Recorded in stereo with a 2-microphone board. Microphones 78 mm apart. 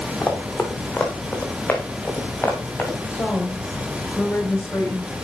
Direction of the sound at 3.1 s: 30° left (ahead or behind).